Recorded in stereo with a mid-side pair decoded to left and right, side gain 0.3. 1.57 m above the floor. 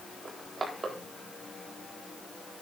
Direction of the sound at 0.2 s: 45° right.